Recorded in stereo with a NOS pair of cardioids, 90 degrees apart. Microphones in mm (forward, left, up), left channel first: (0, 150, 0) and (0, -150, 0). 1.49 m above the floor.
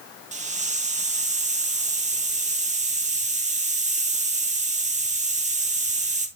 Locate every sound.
0.3 s a hiss: 20° right, 1.7 m